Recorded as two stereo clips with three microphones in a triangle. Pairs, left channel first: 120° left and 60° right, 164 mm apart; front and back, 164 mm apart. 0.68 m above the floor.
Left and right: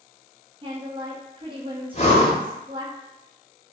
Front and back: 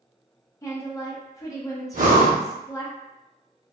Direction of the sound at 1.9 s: 160° left.